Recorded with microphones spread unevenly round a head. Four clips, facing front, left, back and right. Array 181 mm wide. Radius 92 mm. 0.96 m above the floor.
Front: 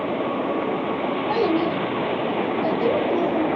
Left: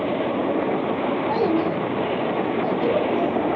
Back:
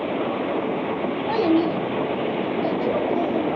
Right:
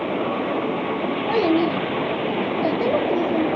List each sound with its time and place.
1.3 s a child speaking: 135° right, 1.0 m; by 3.5 s 70° right, 1.2 m